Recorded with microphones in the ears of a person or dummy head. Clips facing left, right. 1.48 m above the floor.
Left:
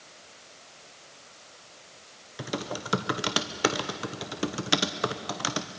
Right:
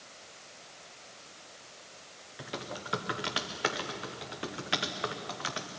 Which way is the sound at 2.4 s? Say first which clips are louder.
Left 7 dB; 55° left (ahead or behind).